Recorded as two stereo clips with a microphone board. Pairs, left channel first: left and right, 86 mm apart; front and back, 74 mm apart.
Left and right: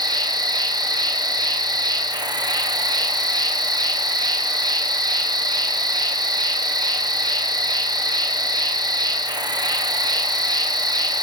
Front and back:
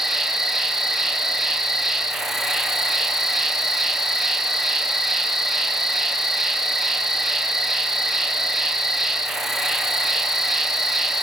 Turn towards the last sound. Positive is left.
turn(degrees=-95)